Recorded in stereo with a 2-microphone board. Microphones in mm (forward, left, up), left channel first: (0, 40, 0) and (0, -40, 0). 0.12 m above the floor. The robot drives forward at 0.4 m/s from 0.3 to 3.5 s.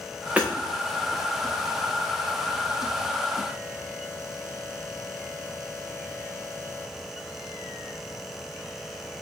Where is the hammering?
15° right (ahead or behind), 3.5 m.